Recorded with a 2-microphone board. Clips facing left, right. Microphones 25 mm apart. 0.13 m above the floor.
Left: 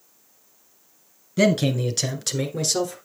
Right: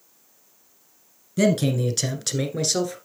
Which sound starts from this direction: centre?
A man speaking, at 1.4 s.